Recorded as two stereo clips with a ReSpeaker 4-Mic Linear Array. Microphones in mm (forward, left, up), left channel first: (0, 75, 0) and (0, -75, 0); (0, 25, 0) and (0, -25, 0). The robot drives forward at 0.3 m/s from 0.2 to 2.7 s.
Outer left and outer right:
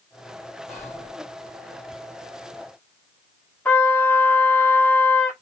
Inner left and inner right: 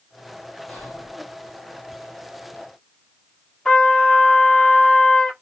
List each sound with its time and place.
0.7 s whispering: 10° left (ahead or behind), 3 m
3.6 s a trumpet: 10° left (ahead or behind), 1.7 m